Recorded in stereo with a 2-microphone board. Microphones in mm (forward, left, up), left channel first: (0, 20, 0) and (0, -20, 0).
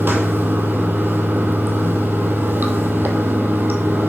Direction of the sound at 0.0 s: 55° right (ahead or behind).